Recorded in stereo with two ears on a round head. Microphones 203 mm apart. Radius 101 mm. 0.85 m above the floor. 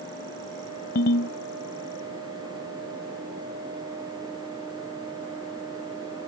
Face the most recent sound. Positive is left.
turn(degrees=45)  # may be behind; listen again after turning